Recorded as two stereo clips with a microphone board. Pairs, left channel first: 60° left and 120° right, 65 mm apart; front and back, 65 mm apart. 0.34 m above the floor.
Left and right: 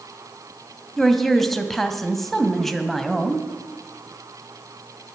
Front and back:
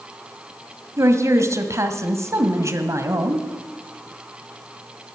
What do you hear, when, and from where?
1.0 s a woman speaking: 145° left, 1.7 m